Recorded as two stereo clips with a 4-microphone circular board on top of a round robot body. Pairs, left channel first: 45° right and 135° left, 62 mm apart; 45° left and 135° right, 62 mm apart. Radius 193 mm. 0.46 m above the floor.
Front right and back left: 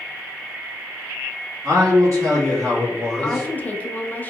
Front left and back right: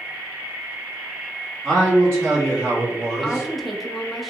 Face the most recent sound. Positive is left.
turn(degrees=-45)